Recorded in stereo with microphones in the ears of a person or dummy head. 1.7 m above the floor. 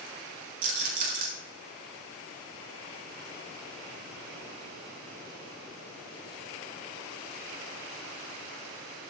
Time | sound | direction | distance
0.6 | a rattle | 55° right (ahead or behind) | 6 m